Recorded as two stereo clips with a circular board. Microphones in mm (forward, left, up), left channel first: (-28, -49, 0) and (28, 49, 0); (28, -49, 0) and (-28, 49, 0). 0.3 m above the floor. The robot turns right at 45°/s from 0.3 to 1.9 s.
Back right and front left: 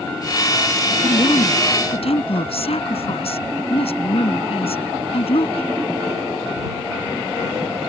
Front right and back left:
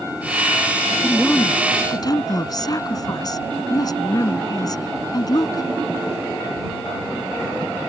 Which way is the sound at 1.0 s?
150° right.